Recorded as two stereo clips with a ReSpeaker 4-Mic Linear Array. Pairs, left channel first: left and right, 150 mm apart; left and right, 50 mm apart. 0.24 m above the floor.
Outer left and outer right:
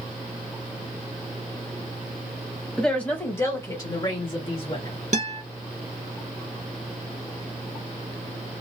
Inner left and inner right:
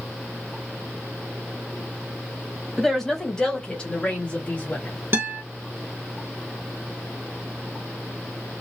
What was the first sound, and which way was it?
A woman speaking, 5° left (ahead or behind).